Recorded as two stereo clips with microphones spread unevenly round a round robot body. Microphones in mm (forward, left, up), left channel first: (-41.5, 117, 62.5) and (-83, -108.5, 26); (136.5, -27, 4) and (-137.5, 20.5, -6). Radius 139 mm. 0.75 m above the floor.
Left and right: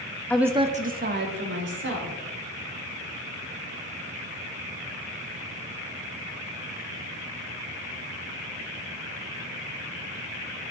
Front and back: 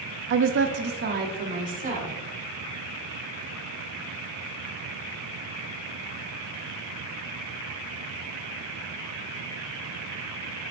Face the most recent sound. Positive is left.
turn(degrees=-125)